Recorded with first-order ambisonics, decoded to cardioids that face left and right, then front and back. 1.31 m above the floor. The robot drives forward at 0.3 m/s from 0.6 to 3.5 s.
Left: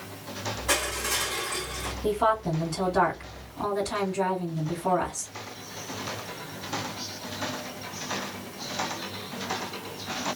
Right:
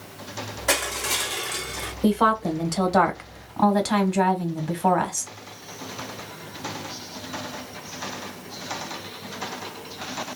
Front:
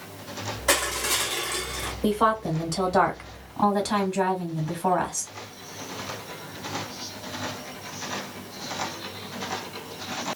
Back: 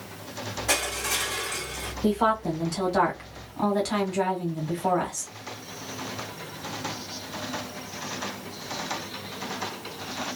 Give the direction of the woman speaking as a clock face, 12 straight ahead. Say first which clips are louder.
Right 3 dB, front 1 dB; 2 o'clock.